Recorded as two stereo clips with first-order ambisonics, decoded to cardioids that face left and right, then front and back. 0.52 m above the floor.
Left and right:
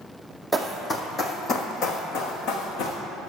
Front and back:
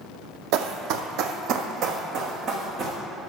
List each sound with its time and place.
0.5 s running footsteps: 175° right, 1.0 m; by 3.0 s 120° left, 2 m